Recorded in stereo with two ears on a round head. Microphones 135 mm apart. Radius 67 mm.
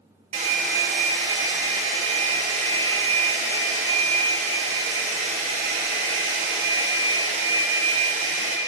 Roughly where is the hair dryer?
Right.